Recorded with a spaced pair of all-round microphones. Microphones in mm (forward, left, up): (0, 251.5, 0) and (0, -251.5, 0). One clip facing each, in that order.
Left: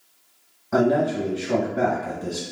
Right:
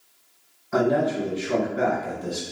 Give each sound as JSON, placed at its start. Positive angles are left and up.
{"t": 0.7, "sound": "a man speaking", "side_deg": 75, "distance_m": 1.0}